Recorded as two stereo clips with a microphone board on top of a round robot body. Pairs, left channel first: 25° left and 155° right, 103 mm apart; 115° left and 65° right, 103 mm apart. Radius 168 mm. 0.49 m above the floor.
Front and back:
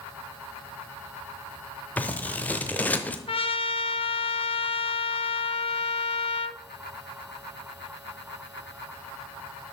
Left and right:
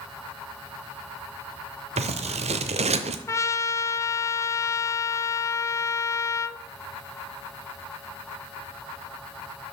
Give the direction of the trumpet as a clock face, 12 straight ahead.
10 o'clock.